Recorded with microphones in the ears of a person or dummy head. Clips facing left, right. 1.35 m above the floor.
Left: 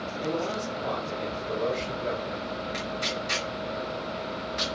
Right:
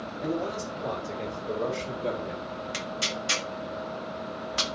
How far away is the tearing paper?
About 1.6 m.